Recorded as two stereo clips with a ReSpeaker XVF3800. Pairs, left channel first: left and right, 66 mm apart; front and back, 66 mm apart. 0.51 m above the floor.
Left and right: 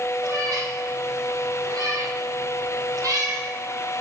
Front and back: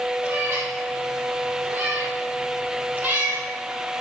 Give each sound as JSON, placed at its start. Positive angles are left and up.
{"t": 0.2, "sound": "a cat meowing", "azimuth_deg": -120, "distance_m": 3.5}